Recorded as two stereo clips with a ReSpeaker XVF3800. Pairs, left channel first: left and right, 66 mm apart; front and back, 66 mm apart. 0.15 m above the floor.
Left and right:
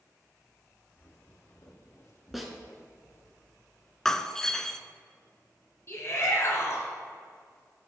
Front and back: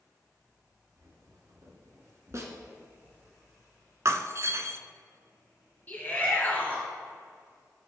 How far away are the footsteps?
About 2 m.